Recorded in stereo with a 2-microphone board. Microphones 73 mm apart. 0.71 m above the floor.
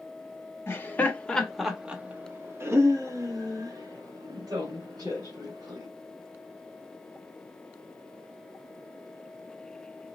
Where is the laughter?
35° left (ahead or behind), 1.1 m; by 5.9 s 70° right (ahead or behind), 3 m.